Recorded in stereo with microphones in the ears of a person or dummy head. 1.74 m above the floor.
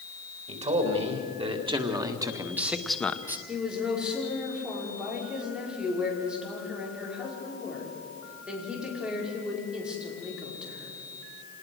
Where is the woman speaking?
5° right (ahead or behind), 5.5 m.